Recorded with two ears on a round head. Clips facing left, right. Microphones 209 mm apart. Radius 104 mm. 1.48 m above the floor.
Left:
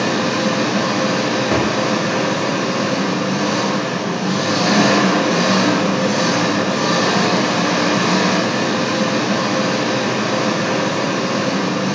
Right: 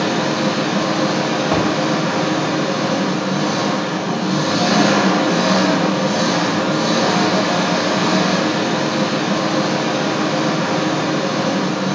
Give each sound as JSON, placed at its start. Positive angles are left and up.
{"t": 0.0, "sound": "an engine running", "side_deg": 50, "distance_m": 2.0}
{"t": 1.5, "sound": "a thud", "side_deg": 30, "distance_m": 1.3}